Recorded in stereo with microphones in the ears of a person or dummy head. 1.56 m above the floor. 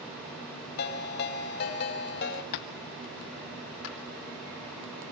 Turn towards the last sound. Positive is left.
turn(degrees=80)